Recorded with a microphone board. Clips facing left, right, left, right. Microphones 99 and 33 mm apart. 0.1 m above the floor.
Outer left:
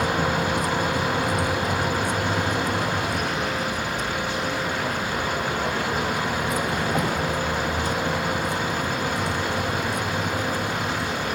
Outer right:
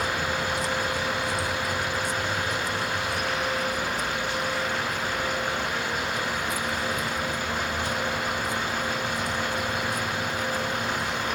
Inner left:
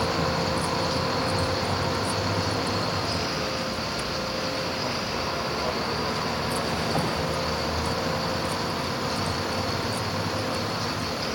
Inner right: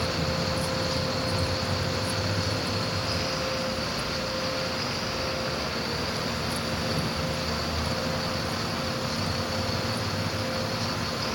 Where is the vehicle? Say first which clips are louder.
Outer left 5 dB, inner left 3 dB; 50° left (ahead or behind); by 11.4 s 65° left (ahead or behind).